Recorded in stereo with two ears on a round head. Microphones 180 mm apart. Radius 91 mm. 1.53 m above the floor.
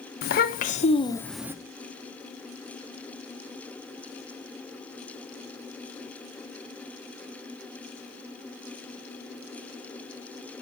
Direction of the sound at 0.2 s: 50° left (ahead or behind).